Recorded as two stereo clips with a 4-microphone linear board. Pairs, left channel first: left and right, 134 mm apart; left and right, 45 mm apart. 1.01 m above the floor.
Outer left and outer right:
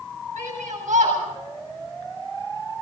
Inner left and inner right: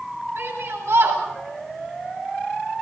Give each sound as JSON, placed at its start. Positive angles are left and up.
{"t": 0.4, "sound": "a shout", "side_deg": -65, "distance_m": 8.0}